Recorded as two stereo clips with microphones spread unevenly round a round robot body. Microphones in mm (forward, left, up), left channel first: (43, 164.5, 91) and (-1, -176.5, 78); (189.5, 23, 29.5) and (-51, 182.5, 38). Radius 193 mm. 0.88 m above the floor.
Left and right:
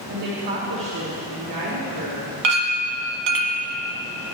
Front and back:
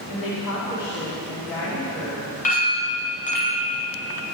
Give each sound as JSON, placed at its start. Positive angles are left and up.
{"t": 0.1, "sound": "a woman speaking", "azimuth_deg": -35, "distance_m": 2.5}
{"t": 2.4, "sound": "a clink", "azimuth_deg": -105, "distance_m": 1.5}